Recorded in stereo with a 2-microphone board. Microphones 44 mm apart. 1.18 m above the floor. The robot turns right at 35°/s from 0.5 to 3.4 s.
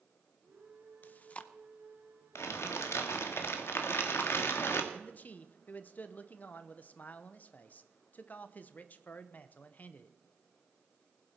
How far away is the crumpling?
About 1.5 m.